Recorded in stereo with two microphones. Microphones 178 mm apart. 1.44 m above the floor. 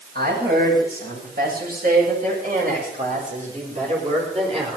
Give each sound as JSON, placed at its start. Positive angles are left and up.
{"t": 0.1, "sound": "a woman speaking", "side_deg": -65, "distance_m": 7.5}